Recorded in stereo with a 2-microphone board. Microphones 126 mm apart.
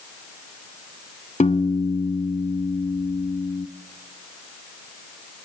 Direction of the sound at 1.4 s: 70° left (ahead or behind).